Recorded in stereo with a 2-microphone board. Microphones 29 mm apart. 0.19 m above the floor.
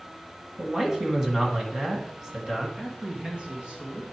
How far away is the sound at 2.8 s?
About 2 m.